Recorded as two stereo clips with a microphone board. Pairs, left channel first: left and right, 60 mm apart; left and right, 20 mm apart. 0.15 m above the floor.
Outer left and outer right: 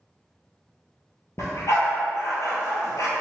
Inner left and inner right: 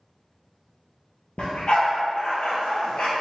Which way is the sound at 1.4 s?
60° left (ahead or behind).